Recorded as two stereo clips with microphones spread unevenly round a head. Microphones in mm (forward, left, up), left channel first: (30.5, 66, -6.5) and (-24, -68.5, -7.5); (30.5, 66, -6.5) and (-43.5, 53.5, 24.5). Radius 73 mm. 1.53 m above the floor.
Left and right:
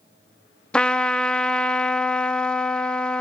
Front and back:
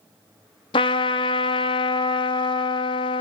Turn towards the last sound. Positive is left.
turn(degrees=-10)